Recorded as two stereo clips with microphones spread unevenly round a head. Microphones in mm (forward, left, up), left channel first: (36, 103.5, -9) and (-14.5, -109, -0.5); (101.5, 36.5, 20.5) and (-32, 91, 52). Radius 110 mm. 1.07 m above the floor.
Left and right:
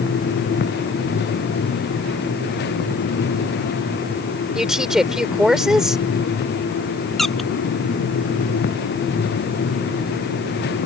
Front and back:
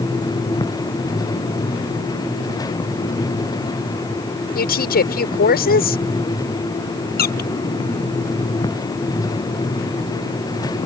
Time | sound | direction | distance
4.5 | a woman speaking | 15° right | ?
7.2 | a squeak | 10° right | ?